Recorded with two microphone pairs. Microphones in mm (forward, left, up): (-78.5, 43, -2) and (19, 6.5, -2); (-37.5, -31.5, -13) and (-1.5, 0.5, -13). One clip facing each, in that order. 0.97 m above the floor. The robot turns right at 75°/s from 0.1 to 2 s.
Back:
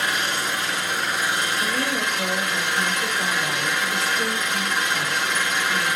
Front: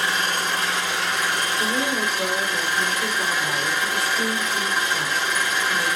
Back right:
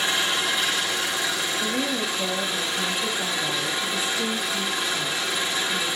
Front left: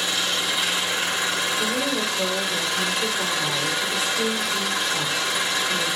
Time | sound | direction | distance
0.0 | an engine running | 80° right | 5.5 m
1.6 | a woman speaking | 10° left | 3.5 m